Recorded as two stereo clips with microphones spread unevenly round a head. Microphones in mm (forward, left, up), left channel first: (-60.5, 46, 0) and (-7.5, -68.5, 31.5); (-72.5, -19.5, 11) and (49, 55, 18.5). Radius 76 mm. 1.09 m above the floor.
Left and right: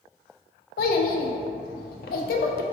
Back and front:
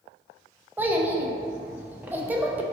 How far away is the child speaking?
About 0.5 m.